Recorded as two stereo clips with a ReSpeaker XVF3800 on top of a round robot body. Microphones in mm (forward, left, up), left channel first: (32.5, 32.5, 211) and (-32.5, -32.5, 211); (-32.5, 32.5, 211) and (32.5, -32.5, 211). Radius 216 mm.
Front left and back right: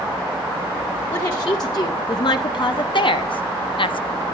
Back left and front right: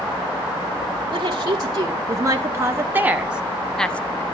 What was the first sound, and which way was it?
A woman speaking, 5° right.